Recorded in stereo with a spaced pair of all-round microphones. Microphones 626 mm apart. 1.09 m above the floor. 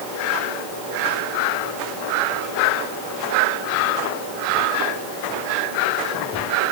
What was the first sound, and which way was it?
Only background noise.